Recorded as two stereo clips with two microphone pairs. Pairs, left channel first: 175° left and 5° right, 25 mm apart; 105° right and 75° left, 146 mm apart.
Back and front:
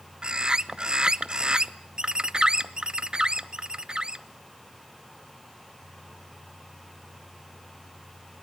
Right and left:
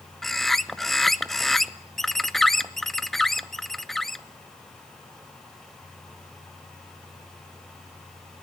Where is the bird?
20° right, 0.7 m.